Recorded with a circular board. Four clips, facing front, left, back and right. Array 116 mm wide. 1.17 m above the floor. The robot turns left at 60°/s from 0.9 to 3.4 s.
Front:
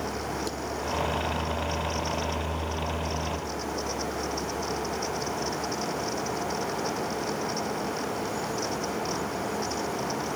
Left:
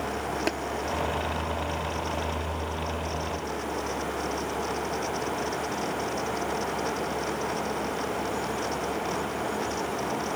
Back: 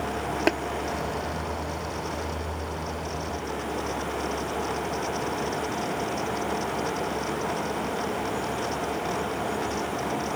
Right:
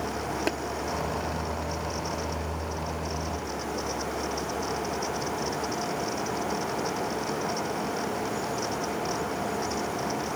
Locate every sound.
0.5 s tapping: 175° left